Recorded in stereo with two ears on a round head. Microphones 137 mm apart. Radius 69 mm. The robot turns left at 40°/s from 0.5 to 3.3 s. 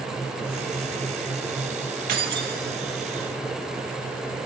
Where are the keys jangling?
60° right (ahead or behind), 2 m; by 2.6 s 65° right (ahead or behind), 2 m.